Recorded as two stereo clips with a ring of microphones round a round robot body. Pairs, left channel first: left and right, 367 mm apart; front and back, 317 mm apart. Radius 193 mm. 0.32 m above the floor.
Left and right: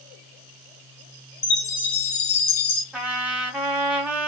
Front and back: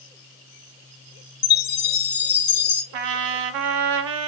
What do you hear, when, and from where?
1.4 s a chime: 45° left, 1.7 m
2.9 s a trumpet: 175° right, 0.7 m